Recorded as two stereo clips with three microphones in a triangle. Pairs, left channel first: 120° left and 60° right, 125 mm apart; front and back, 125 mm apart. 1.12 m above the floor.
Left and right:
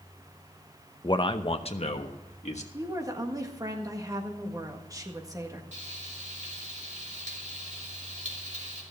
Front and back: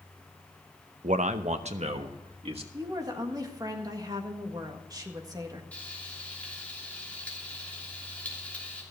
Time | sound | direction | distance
1.0 | a man speaking | 175° left | 0.7 m
2.7 | a woman speaking | 120° right | 1.7 m
5.7 | frying | 80° right | 3 m